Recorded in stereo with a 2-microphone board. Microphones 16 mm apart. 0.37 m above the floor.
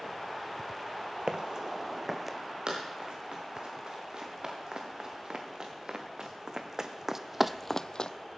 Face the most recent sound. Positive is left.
turn(degrees=55)  # may be behind; listen again after turning